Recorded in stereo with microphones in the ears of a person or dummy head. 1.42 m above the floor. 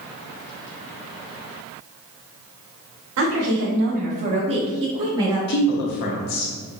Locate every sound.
3.2 s a woman speaking: 80° right, 0.9 m; by 5.4 s 20° right (ahead or behind), 1.7 m
5.5 s a woman speaking: 55° left (ahead or behind), 0.9 m